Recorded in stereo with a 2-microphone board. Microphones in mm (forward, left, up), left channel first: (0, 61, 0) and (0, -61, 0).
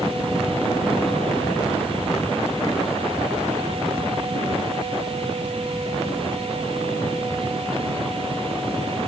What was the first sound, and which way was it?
Only background noise.